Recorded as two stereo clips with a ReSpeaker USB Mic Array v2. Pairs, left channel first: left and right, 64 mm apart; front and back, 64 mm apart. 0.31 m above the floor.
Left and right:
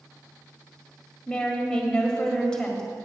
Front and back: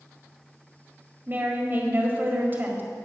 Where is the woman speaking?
160° left, 1.8 m.